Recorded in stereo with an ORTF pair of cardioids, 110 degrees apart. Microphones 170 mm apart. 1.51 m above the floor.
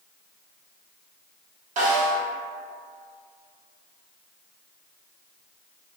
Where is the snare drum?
50° right, 1.0 m.